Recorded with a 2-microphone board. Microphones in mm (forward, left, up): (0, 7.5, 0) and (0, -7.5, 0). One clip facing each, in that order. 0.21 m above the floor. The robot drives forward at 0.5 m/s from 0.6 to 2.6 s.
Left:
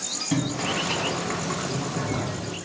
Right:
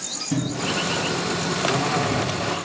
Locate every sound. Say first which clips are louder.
0.3 s boiling: right 2 dB; 45° left (ahead or behind), 0.9 m; by 2.4 s 35° left (ahead or behind), 1.1 m